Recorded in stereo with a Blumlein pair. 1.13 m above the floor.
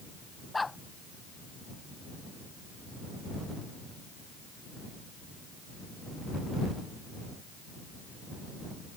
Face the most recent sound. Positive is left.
turn(degrees=10)